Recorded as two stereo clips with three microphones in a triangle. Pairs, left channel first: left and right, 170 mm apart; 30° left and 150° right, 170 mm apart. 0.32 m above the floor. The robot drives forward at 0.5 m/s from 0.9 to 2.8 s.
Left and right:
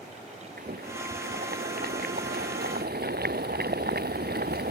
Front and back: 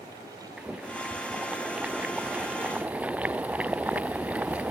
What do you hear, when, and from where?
0.6 s boiling: 65° right